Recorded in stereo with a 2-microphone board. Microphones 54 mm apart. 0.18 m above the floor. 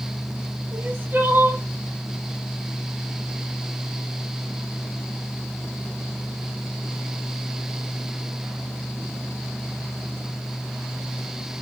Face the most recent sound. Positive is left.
turn(degrees=-40)  # may be behind; listen again after turning